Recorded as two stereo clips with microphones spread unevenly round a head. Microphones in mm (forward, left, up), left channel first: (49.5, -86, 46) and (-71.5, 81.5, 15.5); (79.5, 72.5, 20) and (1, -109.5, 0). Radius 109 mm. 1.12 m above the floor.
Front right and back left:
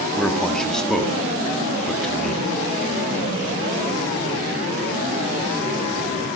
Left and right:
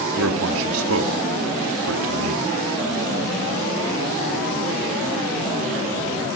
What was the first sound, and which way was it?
A man speaking, 140° right.